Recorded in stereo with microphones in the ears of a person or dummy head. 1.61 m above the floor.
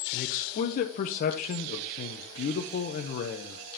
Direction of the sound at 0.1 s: 50° left (ahead or behind).